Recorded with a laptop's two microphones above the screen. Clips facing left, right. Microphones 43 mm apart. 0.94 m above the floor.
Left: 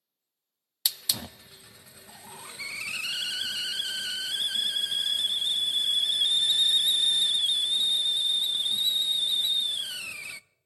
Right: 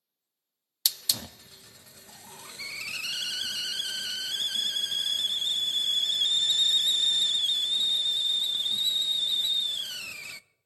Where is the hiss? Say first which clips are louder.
Even; 15° left (ahead or behind), 0.5 m.